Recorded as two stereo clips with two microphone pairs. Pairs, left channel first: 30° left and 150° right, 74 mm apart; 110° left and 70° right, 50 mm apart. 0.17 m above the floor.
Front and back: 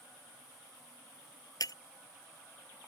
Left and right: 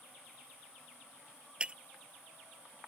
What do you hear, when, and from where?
1.6 s breaking glass: straight ahead